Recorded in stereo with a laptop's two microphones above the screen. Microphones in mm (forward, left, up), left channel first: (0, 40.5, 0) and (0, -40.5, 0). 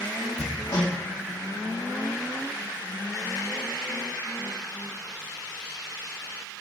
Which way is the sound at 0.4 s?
60° left (ahead or behind).